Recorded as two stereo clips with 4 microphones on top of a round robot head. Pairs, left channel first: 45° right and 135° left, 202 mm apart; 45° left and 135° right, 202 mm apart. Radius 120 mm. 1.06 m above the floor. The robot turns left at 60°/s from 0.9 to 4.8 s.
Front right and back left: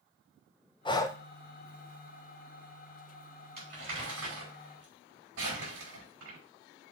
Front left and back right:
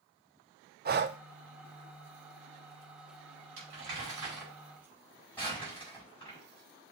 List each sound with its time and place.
0.8 s breathing: 110° right, 0.7 m; by 1.2 s 125° right, 0.7 m
3.6 s crumpling: 160° right, 6 m; by 6.4 s 125° left, 6 m